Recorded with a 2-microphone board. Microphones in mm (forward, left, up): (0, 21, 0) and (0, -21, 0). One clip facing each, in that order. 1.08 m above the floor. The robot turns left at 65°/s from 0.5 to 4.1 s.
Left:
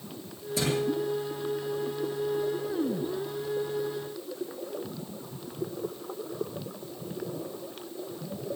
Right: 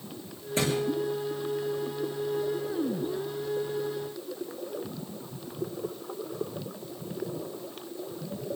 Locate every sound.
0.6 s a thud: 40° right (ahead or behind), 7.5 m; by 0.8 s 30° right (ahead or behind), 7.5 m